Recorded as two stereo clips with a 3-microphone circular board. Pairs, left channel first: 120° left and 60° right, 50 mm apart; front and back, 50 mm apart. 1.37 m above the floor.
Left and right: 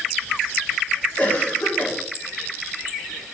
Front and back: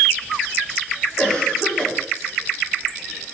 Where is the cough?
65° left, 4 m.